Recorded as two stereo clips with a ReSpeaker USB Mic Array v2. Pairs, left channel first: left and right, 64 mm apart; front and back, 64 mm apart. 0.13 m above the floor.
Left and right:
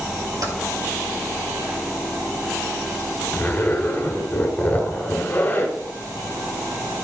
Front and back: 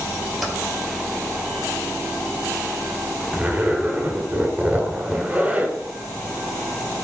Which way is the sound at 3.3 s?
130° left.